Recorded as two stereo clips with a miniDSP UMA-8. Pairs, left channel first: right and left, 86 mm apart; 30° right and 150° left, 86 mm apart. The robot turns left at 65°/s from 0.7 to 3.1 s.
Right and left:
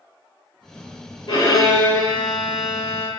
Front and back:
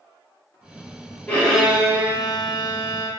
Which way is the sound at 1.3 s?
100° right.